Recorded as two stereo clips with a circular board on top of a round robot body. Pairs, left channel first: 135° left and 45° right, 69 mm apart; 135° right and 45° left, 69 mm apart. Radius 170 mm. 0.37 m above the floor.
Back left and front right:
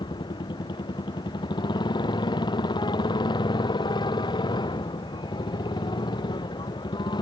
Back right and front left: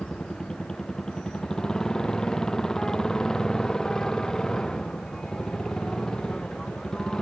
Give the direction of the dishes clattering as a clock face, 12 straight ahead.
No dishes clattering in this recording.